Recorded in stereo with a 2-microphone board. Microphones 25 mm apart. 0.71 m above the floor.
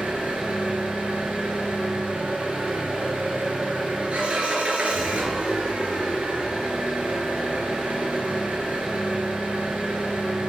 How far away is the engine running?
About 3.5 m.